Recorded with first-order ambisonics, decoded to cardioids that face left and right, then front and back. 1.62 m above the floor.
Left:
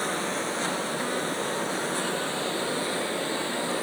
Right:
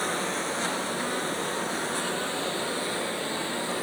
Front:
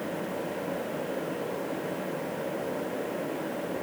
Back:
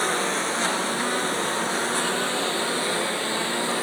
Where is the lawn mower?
Straight behind.